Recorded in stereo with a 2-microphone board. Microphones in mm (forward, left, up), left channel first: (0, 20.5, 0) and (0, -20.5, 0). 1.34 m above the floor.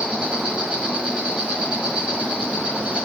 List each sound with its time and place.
0.0 s an insect: 30° right (ahead or behind), 1.3 m